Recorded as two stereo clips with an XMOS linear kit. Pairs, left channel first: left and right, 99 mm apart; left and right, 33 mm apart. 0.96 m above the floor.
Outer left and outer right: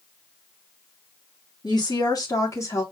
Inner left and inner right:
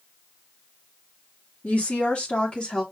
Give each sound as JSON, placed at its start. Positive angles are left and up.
{"t": 1.6, "sound": "a woman speaking", "side_deg": 50, "distance_m": 2.0}